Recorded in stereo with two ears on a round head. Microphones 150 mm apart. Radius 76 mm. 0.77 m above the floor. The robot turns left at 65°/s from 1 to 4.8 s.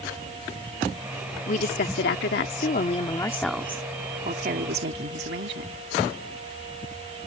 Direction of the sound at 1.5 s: 135° left.